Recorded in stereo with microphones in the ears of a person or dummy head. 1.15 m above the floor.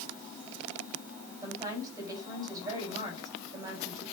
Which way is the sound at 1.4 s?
25° right (ahead or behind).